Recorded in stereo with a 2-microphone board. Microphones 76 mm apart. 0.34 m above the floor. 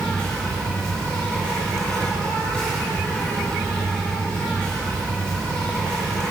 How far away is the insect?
About 3.5 m.